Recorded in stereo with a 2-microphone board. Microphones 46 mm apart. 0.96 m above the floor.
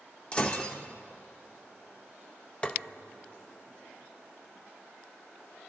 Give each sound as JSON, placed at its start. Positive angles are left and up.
{"t": 0.3, "sound": "breaking glass", "side_deg": 30, "distance_m": 2.5}
{"t": 2.6, "sound": "tapping", "side_deg": 25, "distance_m": 0.7}